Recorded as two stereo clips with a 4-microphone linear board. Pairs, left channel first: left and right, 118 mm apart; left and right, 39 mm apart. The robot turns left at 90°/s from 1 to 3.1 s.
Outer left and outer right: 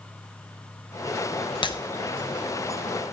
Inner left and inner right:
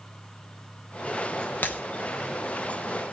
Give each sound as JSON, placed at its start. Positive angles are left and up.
{"t": 1.6, "sound": "breaking glass", "side_deg": 45, "distance_m": 0.9}